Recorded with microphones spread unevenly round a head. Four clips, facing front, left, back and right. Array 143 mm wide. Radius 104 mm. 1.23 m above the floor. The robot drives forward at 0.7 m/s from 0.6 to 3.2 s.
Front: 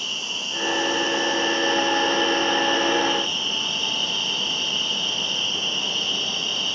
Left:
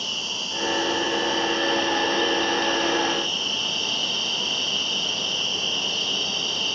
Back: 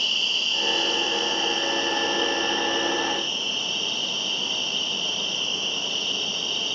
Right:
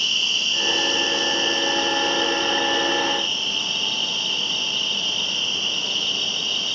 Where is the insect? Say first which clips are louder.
Right 3 dB, back 1 dB; 90° right, 1.4 m; by 6.8 s 145° right, 2 m.